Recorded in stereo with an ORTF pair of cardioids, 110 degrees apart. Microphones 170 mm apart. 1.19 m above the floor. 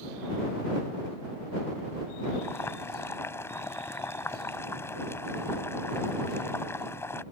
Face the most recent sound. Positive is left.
turn(degrees=15)